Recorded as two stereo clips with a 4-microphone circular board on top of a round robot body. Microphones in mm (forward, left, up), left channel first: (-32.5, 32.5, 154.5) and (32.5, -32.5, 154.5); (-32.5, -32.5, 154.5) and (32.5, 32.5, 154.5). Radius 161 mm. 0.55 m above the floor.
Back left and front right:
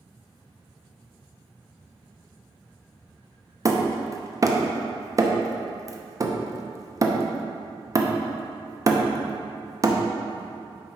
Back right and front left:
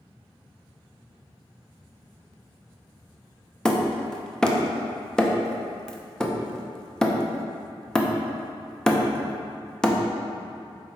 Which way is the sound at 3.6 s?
55° right.